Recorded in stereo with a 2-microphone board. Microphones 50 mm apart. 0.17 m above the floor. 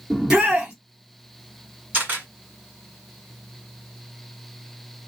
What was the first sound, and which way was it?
A shout, 15° right (ahead or behind).